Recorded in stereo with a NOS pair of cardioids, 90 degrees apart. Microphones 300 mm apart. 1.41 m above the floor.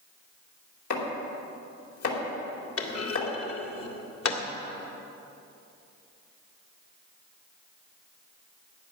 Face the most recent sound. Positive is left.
turn(degrees=50)